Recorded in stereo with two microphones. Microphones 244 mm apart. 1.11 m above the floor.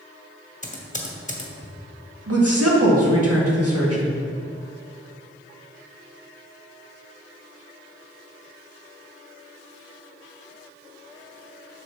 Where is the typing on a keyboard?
30° left (ahead or behind), 1.2 m.